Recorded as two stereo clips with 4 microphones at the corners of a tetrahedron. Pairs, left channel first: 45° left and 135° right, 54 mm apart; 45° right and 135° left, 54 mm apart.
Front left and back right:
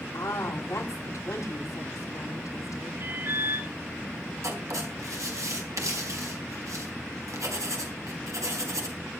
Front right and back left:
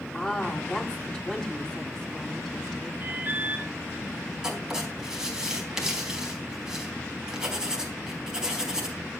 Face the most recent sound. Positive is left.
turn(degrees=-145)